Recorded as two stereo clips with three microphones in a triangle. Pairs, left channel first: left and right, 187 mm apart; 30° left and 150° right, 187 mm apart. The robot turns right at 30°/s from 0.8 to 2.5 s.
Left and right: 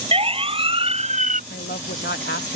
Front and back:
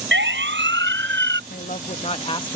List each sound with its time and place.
0.1 s a siren: 150° right; by 1.4 s 135° right
1.5 s a woman speaking: 65° left; by 2.6 s 95° left